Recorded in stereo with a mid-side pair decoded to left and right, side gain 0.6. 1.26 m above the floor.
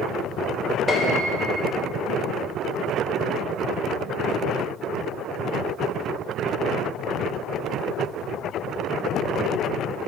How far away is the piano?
About 1.0 m.